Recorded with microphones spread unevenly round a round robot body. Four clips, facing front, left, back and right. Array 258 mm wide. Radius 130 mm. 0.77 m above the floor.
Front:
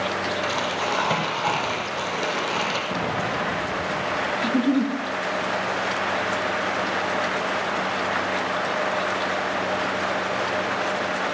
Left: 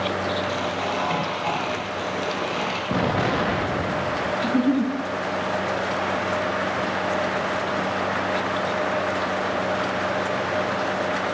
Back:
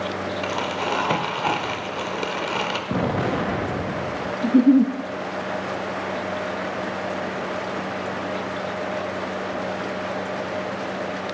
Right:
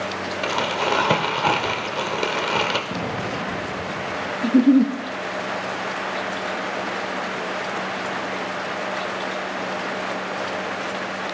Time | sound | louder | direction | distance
0.4 | crumpling | right 3 dB, even | 95° right | 1.6 m
2.9 | an explosion | left 5 dB, back 3 dB | 155° left | 0.6 m
4.4 | a giggle | right 7 dB, back 7 dB | 145° right | 0.8 m